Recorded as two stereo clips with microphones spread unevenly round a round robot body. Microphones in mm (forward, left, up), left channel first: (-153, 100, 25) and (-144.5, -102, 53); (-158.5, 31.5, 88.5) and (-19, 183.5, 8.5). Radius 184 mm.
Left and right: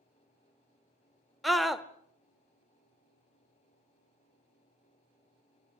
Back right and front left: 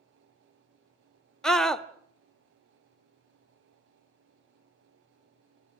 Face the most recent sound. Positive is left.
turn(degrees=25)